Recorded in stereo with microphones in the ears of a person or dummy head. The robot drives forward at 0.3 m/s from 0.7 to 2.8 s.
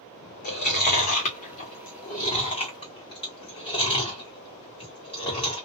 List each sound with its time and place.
0.4 s chewing: 45° left (ahead or behind), 1.0 m; by 5.7 s 30° left (ahead or behind), 1.3 m